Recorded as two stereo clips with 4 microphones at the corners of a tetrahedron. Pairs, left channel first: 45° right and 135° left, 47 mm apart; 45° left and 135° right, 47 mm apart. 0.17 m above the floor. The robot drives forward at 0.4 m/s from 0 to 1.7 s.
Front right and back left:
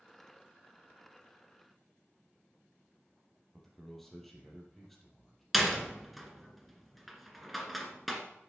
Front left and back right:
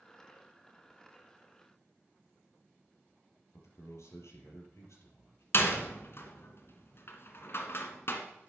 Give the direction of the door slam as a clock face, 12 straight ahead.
10 o'clock.